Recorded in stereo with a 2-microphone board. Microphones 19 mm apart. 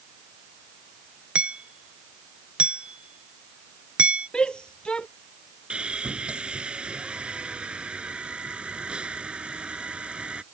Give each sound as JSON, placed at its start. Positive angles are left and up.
{"t": 1.4, "sound": "hammering", "side_deg": -75}
{"t": 4.3, "sound": "a shout", "side_deg": 45}
{"t": 5.7, "sound": "sawing", "side_deg": -70}